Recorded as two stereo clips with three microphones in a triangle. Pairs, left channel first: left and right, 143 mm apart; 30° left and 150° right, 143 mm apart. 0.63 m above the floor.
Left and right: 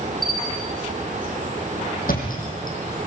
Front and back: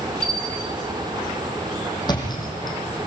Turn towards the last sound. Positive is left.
turn(degrees=90)